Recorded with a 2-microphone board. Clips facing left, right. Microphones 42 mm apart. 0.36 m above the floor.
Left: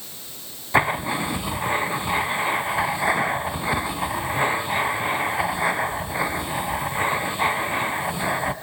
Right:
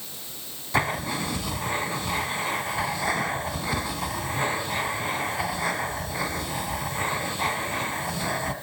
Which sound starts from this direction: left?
Writing, at 0.7 s.